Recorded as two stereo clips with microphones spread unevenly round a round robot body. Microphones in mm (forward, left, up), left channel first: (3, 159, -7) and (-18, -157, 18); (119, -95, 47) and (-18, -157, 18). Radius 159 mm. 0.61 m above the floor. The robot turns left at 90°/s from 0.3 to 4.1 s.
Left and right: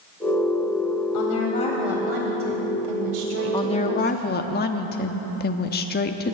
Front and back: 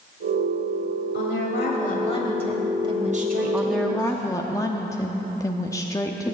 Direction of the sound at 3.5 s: 150° left.